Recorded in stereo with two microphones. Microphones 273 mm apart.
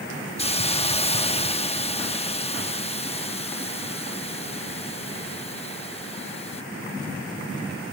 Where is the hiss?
20° left (ahead or behind).